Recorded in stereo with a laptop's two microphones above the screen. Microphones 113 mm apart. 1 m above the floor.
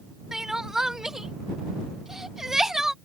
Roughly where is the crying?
Centre.